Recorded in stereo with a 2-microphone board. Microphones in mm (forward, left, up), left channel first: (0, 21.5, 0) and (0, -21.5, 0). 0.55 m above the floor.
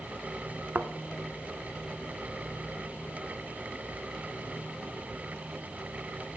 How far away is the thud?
About 0.9 m.